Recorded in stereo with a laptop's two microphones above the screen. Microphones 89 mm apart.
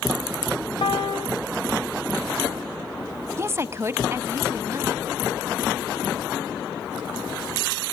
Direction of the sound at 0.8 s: 70° left (ahead or behind).